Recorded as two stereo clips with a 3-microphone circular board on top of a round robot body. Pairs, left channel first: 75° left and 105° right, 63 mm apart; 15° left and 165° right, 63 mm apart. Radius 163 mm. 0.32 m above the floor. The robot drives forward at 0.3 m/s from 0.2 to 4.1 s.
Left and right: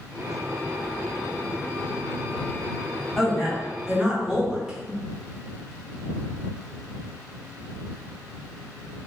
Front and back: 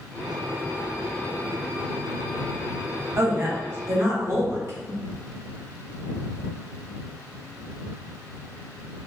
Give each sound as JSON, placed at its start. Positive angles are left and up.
{"t": 3.2, "sound": "a woman speaking", "azimuth_deg": 170, "distance_m": 1.1}